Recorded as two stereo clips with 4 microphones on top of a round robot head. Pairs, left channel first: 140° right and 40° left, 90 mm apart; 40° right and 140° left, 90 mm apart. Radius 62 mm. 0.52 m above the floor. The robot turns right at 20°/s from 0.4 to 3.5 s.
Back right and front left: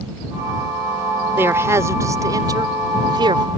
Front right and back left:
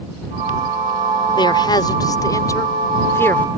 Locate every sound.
1.4 s a man speaking: 20° right; by 3.5 s 20° left